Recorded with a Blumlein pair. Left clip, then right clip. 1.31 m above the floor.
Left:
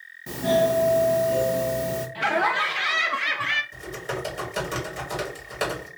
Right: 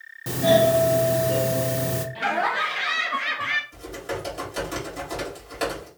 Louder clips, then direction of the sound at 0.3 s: Right 3 dB; 45° right.